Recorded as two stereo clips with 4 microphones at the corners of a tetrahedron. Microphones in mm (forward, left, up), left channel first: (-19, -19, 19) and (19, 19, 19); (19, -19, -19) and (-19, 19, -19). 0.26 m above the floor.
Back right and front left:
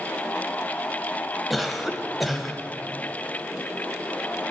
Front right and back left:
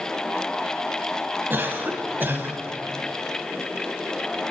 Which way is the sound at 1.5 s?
135° left.